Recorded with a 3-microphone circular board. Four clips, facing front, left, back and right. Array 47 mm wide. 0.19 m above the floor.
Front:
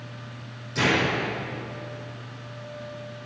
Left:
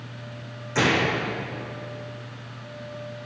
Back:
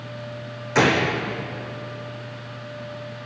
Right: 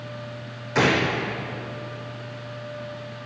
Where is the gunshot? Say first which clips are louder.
Right 1 dB, back 4 dB; 160° right, 2.5 m.